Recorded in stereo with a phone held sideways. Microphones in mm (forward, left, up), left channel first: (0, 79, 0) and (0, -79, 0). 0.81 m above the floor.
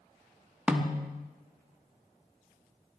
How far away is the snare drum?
About 1.0 m.